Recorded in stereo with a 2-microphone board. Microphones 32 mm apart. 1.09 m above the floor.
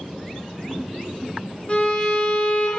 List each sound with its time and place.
1.7 s a violin: 30° left (ahead or behind), 0.5 m